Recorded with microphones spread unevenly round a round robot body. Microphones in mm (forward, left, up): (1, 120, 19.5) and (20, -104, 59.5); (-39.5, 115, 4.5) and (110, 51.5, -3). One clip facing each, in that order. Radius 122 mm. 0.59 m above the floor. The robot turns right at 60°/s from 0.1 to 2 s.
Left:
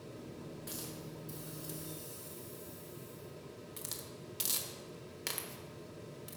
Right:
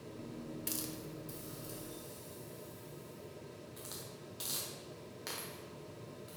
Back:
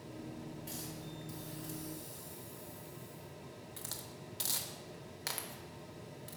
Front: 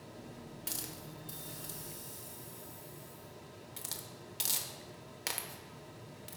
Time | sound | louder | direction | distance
0.7 | a hiss | right 2 dB, back 2 dB | 35° right | 0.9 m